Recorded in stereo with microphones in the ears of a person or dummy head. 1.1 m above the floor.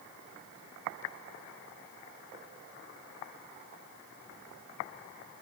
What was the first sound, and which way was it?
Only background noise.